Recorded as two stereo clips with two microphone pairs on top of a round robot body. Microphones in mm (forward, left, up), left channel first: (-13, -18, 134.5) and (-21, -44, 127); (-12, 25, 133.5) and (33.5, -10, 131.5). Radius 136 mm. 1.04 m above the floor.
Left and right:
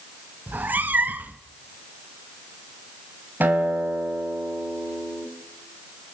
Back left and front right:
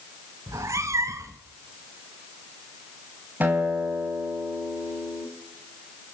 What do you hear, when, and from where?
0.5 s a cat meowing: 80° right, 0.6 m
3.4 s a guitar: 100° right, 3 m